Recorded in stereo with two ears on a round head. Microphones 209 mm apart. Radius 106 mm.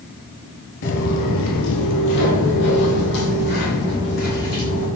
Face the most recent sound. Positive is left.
turn(degrees=40)  # may be behind; listen again after turning